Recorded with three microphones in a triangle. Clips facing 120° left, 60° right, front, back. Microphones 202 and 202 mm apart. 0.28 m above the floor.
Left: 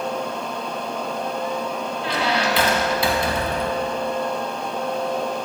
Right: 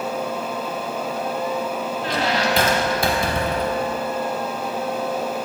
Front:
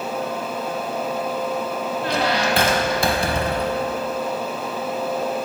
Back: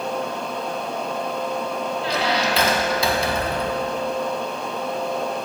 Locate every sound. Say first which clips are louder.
2.0 s a squeak: even, front 2 dB; 25° right, 0.7 m